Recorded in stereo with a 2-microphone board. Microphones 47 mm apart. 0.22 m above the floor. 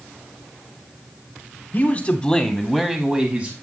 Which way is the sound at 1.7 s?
35° left (ahead or behind).